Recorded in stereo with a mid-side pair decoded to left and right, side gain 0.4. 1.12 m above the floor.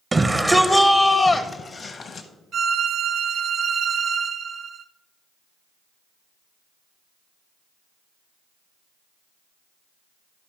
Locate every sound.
0.1 s a shout: 25° right, 0.8 m; by 2.3 s 60° left, 0.9 m
2.5 s a violin: 60° right, 1.2 m